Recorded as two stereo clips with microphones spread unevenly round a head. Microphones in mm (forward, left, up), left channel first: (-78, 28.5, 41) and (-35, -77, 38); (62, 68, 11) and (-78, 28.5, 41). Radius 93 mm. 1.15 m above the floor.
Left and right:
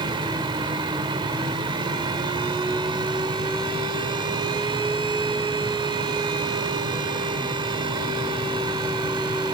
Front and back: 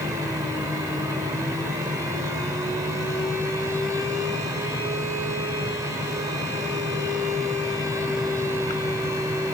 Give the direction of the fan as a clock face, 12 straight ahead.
4 o'clock.